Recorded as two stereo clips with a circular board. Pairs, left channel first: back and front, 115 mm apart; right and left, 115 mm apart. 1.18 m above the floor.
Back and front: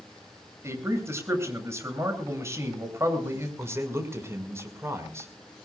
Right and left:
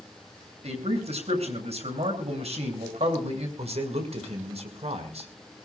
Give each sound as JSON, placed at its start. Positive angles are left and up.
{"t": 0.6, "sound": "a man speaking", "azimuth_deg": 65, "distance_m": 7.5}
{"t": 3.6, "sound": "a man speaking", "azimuth_deg": 65, "distance_m": 5.5}